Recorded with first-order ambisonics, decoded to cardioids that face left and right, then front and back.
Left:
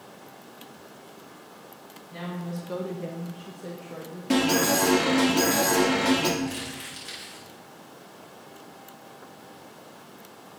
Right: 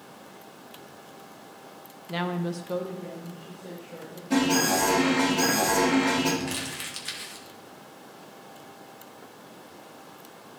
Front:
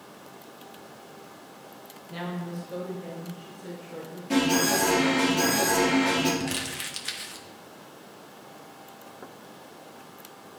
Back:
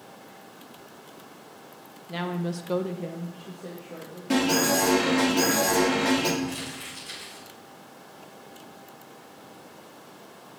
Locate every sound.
2.1 s a woman speaking: 110° right, 0.8 m; by 4.2 s 120° left, 1.9 m
4.3 s an alarm: 115° left, 2.5 m
6.4 s crumpling: 25° right, 1.2 m